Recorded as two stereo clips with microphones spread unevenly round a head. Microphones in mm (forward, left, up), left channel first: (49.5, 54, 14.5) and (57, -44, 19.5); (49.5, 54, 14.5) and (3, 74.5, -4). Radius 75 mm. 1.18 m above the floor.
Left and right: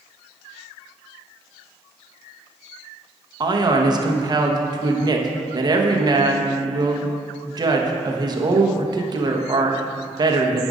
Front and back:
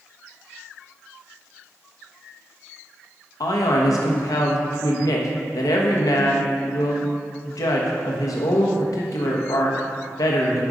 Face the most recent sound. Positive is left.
turn(degrees=-35)